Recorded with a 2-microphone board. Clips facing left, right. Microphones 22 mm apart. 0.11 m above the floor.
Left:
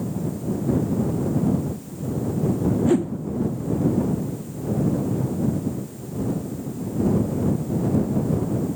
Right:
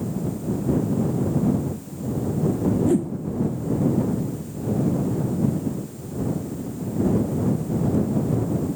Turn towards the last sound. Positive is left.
turn(degrees=30)  # may be behind; listen again after turning